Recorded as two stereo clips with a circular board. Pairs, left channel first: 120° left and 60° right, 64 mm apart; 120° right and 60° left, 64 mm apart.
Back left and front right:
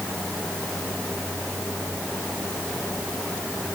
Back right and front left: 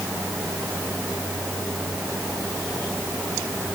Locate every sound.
Only background noise.